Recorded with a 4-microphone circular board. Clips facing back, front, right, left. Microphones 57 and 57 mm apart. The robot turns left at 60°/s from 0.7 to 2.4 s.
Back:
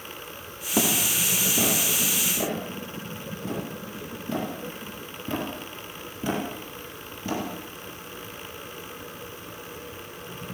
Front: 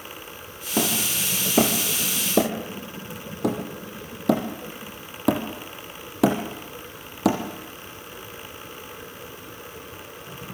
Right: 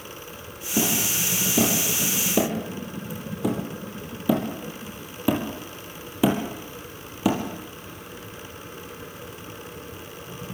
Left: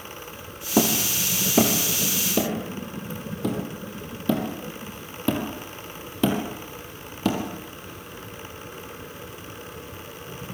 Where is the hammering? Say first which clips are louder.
Even, left 3 dB; 90° left, 5 m; by 7.4 s 10° right, 5 m.